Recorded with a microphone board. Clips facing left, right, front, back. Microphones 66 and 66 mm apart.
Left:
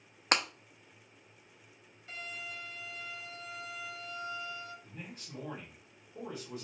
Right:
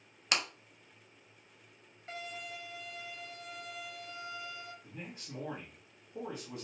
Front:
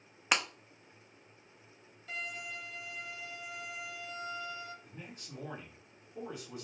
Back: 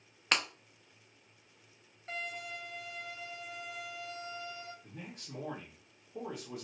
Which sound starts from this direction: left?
Breaking glass, at 0.3 s.